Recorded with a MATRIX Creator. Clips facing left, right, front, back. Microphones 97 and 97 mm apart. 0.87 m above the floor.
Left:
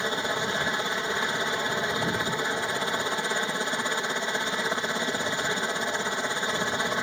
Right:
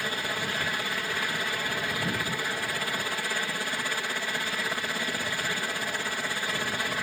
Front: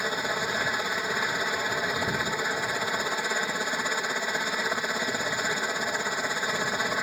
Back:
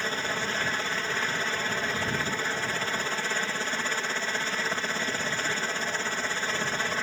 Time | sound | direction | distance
0.0 | a helicopter | 60° left | ?